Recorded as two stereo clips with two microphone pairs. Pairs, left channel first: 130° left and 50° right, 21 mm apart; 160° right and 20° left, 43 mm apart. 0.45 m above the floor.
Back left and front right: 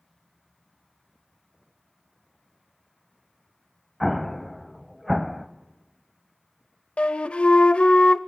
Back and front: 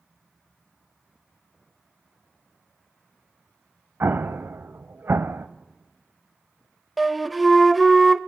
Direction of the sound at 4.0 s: 50° left.